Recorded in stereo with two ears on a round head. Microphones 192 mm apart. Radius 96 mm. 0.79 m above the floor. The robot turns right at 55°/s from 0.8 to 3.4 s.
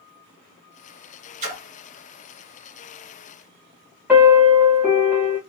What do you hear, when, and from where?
1.4 s a splash: 35° right (ahead or behind), 1.5 m; by 1.6 s 45° right (ahead or behind), 1.5 m
4.1 s a piano: 10° right (ahead or behind), 1.4 m